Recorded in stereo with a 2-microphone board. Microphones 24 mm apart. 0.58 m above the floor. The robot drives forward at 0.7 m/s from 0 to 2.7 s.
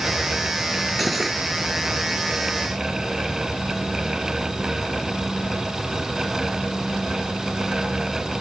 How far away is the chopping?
No chopping in this recording.